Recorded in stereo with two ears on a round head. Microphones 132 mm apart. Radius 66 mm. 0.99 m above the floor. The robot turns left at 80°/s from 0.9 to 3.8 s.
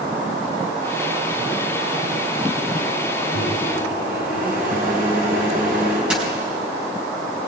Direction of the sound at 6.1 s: 5° right (ahead or behind).